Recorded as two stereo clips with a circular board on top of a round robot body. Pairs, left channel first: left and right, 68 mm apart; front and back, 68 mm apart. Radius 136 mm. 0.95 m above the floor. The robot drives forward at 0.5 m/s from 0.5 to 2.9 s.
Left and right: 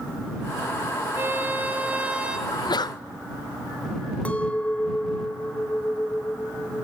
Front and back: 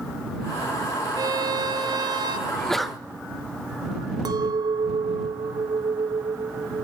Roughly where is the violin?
Behind right.